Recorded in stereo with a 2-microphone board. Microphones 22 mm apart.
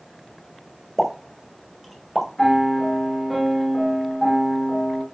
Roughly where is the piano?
Centre.